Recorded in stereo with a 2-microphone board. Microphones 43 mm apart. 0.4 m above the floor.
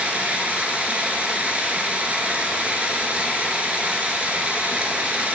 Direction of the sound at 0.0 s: 35° right (ahead or behind).